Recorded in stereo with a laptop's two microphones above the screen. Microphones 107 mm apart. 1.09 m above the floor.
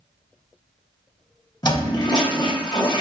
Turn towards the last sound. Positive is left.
turn(degrees=45)  # may be behind; listen again after turning